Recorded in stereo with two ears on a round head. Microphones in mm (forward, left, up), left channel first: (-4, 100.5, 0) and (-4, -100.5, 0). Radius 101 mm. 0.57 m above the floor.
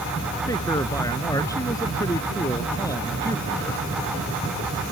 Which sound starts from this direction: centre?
A man speaking, at 0.5 s.